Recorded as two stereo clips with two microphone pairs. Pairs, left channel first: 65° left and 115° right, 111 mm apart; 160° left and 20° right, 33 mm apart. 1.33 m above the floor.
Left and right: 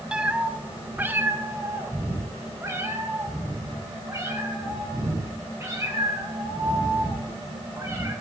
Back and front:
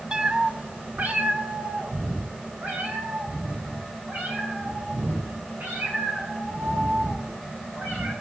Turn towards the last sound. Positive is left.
turn(degrees=-50)